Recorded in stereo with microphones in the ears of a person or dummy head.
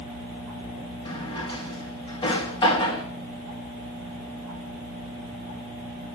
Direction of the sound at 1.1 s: 30° left (ahead or behind).